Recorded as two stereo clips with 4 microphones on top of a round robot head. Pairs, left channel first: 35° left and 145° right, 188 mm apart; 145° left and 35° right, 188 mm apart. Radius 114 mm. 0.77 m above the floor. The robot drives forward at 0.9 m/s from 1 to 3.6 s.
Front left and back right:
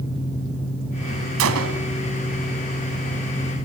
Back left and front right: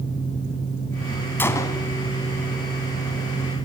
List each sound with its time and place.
1.4 s a gunshot: 135° right, 1.5 m; by 1.9 s 145° right, 1.8 m